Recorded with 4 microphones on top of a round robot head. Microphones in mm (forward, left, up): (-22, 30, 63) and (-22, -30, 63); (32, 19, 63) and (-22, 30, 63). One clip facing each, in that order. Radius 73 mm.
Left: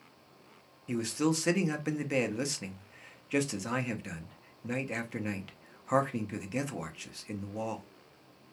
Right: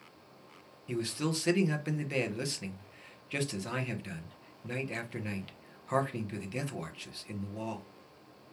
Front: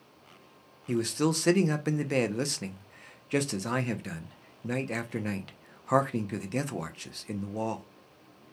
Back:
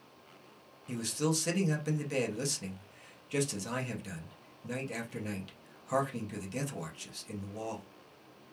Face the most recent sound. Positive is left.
turn(degrees=15)